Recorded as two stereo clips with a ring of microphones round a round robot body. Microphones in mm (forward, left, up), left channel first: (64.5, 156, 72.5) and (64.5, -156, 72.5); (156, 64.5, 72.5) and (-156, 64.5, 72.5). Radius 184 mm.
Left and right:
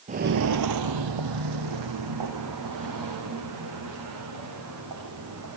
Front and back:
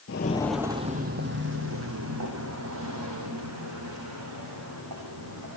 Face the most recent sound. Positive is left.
turn(degrees=-135)